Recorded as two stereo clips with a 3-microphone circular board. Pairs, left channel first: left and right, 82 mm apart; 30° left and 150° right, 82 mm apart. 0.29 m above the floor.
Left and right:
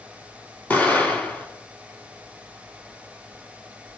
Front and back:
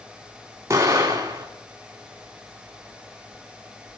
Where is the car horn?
No car horn in this recording.